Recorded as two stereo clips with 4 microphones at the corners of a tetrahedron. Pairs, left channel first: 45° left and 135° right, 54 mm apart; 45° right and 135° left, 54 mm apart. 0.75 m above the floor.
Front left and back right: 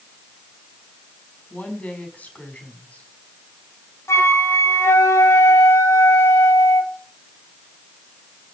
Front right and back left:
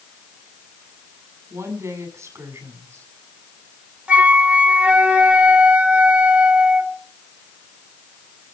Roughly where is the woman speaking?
Left.